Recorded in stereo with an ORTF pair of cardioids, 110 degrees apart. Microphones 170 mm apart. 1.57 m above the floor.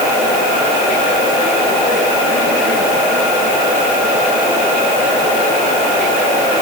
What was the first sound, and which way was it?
Only background noise.